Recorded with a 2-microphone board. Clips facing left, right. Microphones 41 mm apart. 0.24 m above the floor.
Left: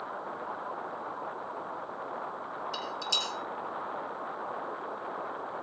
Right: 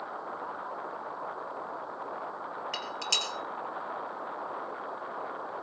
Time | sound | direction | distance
2.7 | dishes clattering | 55° right (ahead or behind) | 3.5 m